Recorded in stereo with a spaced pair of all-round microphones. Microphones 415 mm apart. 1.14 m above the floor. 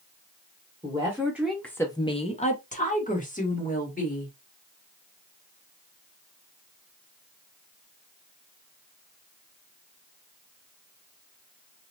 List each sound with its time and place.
0.8 s a woman speaking: 10° right (ahead or behind), 0.8 m; by 4.3 s 20° left (ahead or behind), 1.7 m